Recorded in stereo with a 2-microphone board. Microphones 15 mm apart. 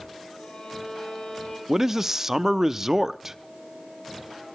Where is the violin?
75° left (ahead or behind), 5 m.